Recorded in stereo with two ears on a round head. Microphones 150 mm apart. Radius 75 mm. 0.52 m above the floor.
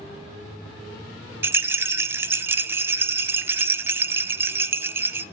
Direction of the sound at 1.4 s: 15° right (ahead or behind).